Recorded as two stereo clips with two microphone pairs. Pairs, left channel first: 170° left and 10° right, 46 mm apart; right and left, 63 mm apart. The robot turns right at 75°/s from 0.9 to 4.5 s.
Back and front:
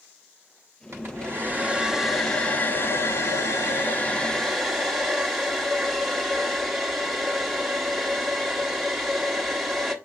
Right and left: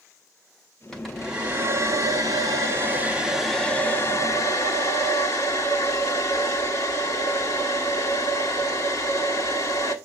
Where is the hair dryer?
10° right, 1.4 m; by 9.9 s 100° right, 1.4 m.